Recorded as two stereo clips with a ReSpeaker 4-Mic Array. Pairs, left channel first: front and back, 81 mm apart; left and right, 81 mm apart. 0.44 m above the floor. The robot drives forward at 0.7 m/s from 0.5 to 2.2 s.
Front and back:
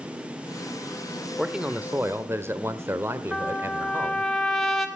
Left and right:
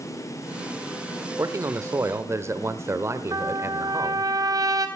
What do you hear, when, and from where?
1.4 s a man speaking: 95° right, 1.1 m; by 4.3 s 130° right, 1.2 m
3.3 s a trumpet: 85° right, 2.5 m